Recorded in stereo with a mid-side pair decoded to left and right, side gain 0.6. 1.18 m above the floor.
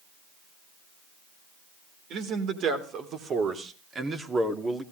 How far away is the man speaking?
About 3.5 m.